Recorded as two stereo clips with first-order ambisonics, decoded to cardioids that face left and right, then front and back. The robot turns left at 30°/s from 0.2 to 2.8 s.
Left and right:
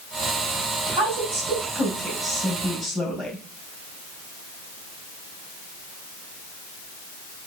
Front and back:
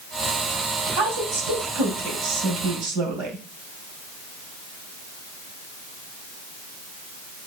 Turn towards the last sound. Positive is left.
turn(degrees=160)